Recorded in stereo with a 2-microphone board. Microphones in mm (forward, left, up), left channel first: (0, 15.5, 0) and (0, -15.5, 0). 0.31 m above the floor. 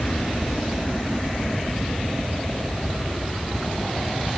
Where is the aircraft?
35° left (ahead or behind); by 4.4 s 40° left (ahead or behind).